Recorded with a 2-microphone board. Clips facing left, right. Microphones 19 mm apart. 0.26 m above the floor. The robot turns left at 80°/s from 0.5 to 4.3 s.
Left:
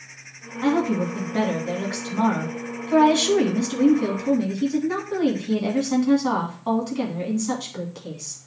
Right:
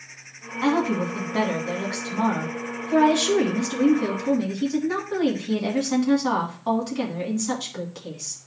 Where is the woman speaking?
70° right, 2 m; by 8.4 s 5° right, 2 m.